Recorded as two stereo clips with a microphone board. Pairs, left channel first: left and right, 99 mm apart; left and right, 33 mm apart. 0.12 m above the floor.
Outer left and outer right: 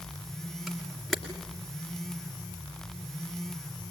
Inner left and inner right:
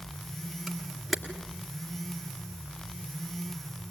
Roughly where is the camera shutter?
Centre.